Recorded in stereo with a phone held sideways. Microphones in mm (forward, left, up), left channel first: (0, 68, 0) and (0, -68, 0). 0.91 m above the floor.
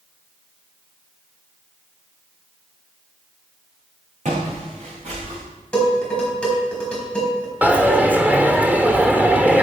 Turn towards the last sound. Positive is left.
turn(degrees=-10)  # may be behind; listen again after turning